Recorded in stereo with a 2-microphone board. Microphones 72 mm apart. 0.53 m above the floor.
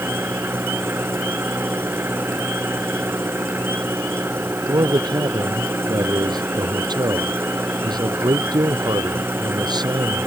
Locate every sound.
0.0 s an engine running: 30° right (ahead or behind)
4.7 s a man speaking: 70° right (ahead or behind)